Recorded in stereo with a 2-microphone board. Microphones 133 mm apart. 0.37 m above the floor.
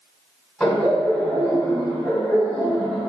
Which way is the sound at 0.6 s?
5° left (ahead or behind).